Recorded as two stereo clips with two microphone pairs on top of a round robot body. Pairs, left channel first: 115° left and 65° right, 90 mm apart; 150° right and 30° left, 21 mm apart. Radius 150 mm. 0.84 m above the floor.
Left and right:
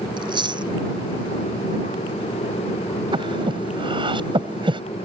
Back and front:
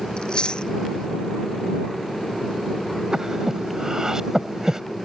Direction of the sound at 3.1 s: 30° right.